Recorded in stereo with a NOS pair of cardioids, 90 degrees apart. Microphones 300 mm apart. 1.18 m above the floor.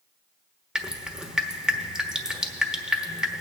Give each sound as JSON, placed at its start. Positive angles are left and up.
{"t": 0.8, "sound": "dripping", "azimuth_deg": 0, "distance_m": 0.9}